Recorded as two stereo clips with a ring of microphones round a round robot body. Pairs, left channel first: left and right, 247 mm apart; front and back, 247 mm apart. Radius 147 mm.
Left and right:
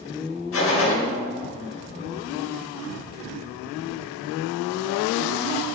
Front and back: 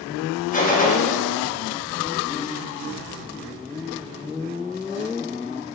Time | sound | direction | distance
0.5 | a gunshot | 60° left | 2.5 m